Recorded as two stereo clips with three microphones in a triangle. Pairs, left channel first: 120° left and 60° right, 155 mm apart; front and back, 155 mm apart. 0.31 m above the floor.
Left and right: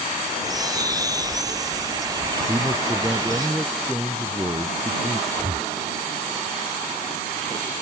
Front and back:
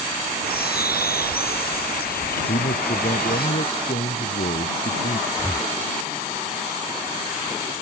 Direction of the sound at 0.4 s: 5° left.